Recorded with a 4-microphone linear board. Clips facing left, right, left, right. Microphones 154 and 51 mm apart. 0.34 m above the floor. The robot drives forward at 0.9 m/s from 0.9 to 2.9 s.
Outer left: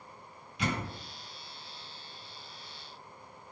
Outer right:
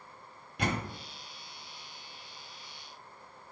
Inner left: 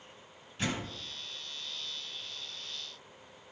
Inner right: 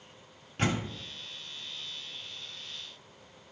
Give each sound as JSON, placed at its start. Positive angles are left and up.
{"t": 0.6, "sound": "a door slam", "side_deg": -60, "distance_m": 1.3}